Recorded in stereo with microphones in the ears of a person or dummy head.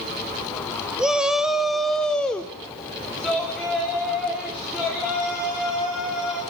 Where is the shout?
5° right (ahead or behind), 1.3 m; by 6.4 s 5° left (ahead or behind), 6 m.